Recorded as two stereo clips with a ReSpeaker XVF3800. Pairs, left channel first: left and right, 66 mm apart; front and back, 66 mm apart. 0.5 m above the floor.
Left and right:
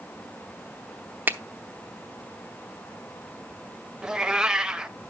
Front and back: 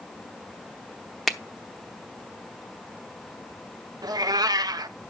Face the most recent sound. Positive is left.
turn(degrees=-170)